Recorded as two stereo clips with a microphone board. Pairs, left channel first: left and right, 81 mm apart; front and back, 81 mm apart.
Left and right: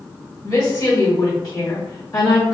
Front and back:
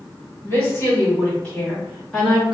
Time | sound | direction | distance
0.4 | a woman speaking | 50° left | 1.7 m